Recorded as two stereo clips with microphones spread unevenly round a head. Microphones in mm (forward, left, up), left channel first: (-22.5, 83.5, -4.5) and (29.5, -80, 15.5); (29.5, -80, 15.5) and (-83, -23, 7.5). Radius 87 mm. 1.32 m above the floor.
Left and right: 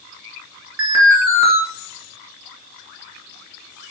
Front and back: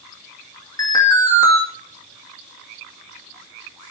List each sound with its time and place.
0.8 s an alarm: 90° right, 3 m